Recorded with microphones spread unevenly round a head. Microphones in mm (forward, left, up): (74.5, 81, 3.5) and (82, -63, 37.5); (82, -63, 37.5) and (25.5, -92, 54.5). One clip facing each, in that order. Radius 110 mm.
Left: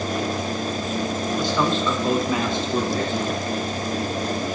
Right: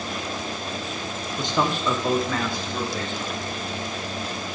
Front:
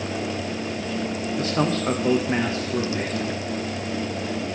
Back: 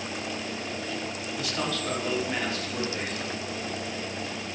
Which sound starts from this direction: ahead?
A man speaking, at 1.4 s.